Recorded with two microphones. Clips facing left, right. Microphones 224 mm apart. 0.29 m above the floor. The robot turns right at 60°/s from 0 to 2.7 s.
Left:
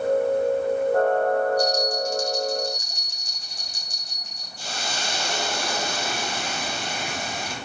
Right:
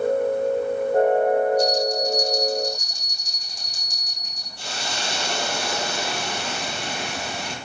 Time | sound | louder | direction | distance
1.6 | a bell | right 2 dB | 160° right | 9 m
4.6 | a hiss | right 1 dB | 65° right (ahead or behind) | 5 m